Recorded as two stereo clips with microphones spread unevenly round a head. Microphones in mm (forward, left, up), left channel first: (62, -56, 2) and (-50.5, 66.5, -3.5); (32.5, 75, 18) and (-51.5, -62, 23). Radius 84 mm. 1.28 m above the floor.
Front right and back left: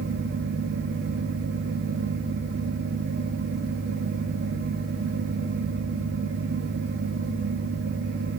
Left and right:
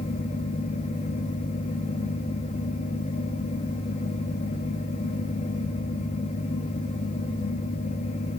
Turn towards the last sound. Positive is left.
turn(degrees=105)